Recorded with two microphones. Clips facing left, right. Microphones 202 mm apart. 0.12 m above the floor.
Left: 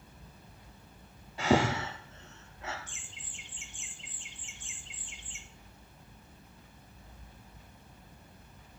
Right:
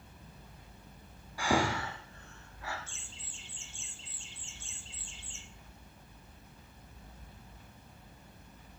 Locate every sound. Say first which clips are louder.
1.4 s breathing: left 4 dB; 20° left (ahead or behind), 1.9 m
2.9 s laughter: even; 15° left (ahead or behind), 1.5 m